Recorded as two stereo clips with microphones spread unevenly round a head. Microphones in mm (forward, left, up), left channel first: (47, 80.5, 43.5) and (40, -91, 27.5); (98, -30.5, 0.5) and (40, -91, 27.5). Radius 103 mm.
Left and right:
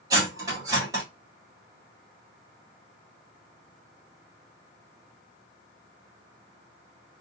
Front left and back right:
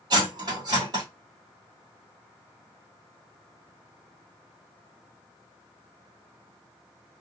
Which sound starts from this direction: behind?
Cutlery clinking, at 0.1 s.